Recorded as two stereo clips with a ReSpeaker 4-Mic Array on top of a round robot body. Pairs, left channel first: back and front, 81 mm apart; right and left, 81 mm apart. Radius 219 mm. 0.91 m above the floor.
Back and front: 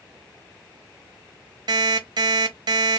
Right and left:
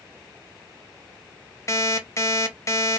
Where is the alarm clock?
35° right, 1.2 m.